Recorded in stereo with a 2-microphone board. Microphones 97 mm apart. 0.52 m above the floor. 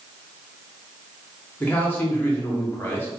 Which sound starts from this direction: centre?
A man speaking, at 1.6 s.